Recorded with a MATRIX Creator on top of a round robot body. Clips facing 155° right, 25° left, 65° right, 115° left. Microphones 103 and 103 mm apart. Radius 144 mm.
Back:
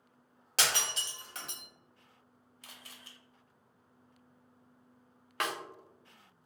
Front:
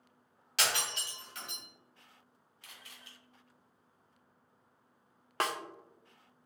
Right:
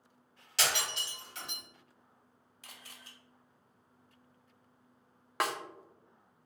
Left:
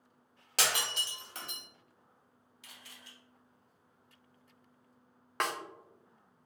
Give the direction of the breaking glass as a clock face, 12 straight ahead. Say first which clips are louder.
Back 1 dB, even; 7 o'clock.